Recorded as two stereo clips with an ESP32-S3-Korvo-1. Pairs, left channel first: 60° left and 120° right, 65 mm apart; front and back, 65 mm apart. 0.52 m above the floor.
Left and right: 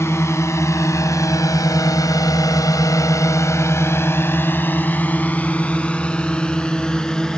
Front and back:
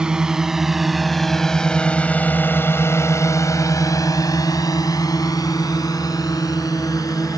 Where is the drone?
105° left; by 7.4 s 20° right.